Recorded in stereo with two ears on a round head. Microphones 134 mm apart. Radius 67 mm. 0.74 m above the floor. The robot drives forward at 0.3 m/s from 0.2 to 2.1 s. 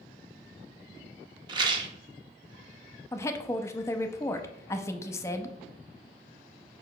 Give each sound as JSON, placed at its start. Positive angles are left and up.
{"t": 1.5, "sound": "a rattle", "side_deg": -30, "distance_m": 0.8}
{"t": 3.1, "sound": "a woman speaking", "side_deg": 20, "distance_m": 0.6}